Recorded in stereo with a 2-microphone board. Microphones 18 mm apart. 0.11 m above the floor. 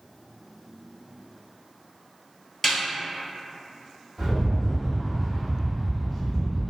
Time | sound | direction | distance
2.6 | a snare drum | 15° left (ahead or behind) | 0.8 m
4.2 | a rattle | 10° left (ahead or behind) | 1.7 m